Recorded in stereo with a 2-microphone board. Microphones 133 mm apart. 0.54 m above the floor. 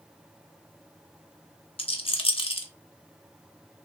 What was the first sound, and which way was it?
A rattle, 50° left (ahead or behind).